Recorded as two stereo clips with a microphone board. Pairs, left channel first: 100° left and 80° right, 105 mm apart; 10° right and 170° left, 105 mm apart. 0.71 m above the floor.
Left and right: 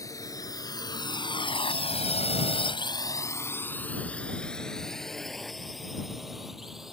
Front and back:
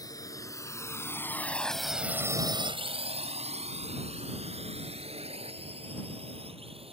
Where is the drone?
45° left; by 6.9 s 165° right.